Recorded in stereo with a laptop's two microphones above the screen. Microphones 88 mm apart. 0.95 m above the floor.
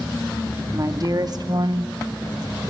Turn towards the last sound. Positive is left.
turn(degrees=-20)  # may be behind; listen again after turning